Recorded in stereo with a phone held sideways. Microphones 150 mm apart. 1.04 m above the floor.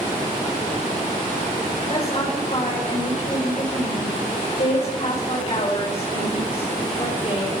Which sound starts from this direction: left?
A woman speaking, at 1.9 s.